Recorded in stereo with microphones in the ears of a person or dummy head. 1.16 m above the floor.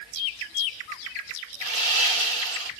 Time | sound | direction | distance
1.6 | sawing | 45° right (ahead or behind) | 0.9 m